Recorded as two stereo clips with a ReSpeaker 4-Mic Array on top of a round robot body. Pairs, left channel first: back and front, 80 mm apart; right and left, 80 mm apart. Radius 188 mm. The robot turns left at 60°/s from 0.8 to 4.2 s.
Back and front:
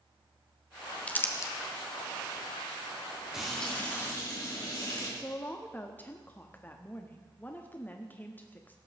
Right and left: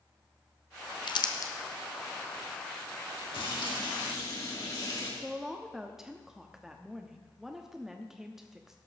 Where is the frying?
85° right, 3.5 m; by 5.1 s 135° right, 3.5 m.